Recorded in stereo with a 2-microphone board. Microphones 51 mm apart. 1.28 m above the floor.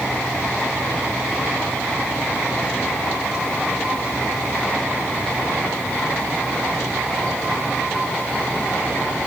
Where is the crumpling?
No crumpling in this recording.